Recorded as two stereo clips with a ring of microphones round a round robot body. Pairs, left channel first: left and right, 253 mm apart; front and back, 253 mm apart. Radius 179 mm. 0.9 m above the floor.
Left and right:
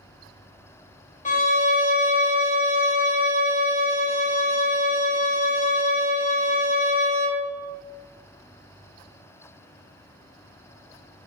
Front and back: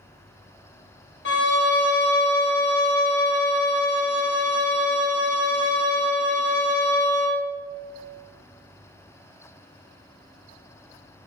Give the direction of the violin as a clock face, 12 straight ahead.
11 o'clock.